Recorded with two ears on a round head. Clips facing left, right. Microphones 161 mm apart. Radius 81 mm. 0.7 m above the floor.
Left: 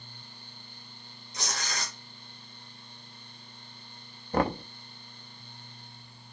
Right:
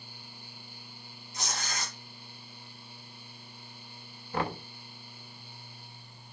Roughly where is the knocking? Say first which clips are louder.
Left 6 dB; left.